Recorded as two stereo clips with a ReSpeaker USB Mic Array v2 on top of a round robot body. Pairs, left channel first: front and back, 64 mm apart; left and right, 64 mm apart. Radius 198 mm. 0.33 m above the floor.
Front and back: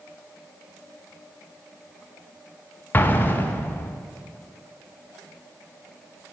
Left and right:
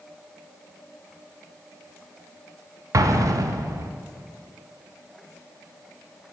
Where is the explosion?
60° right, 0.6 m.